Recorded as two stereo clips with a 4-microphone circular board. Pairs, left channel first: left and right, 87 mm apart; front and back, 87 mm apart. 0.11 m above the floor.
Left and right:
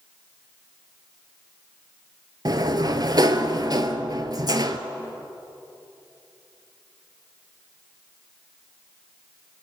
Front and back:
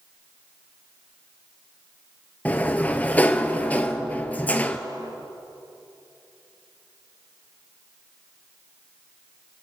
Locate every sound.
2.5 s a sliding door: 65° right, 0.8 m